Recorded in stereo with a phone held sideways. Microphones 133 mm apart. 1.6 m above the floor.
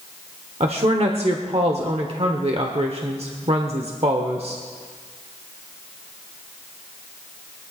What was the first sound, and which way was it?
A woman speaking, 50° right (ahead or behind).